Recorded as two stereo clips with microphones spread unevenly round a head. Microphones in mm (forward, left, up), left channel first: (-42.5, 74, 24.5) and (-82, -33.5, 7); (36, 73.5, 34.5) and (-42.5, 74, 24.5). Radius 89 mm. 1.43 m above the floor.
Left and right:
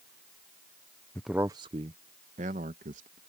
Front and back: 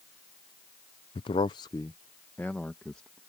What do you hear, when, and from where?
1.1 s a man speaking: 10° right; by 3.2 s 85° right